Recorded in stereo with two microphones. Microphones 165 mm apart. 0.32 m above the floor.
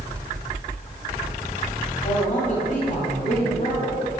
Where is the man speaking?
50° left (ahead or behind), 1.4 m.